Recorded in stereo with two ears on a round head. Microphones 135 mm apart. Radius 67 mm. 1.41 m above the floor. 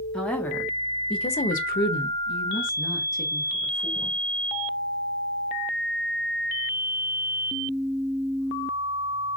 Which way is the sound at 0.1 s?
5° left (ahead or behind).